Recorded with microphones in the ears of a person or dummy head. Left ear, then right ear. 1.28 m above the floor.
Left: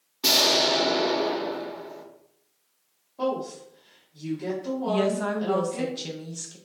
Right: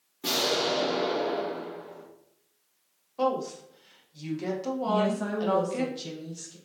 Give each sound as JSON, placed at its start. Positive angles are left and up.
{"t": 0.2, "sound": "an explosion", "side_deg": 35, "distance_m": 0.8}
{"t": 3.2, "sound": "a woman speaking", "side_deg": -70, "distance_m": 1.3}
{"t": 4.9, "sound": "a woman speaking", "side_deg": 20, "distance_m": 0.5}